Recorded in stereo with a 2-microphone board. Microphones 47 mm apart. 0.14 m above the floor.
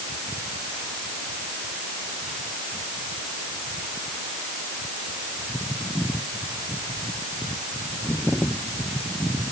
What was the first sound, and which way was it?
Only background noise.